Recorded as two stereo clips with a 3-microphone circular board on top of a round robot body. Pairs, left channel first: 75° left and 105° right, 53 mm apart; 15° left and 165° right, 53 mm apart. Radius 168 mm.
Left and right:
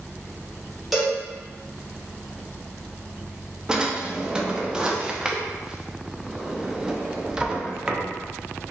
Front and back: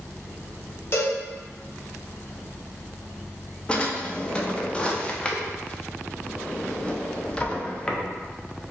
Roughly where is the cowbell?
Ahead.